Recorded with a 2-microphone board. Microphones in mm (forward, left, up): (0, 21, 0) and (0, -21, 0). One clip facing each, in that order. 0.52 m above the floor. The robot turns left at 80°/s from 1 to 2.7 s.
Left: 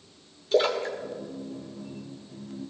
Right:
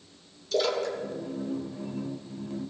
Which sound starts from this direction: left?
A splash, at 0.5 s.